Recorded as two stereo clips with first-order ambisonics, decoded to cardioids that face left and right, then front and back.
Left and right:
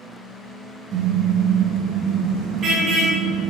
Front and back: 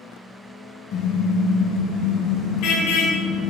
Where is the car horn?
30° right, 3.5 m; by 3.5 s 20° right, 7 m.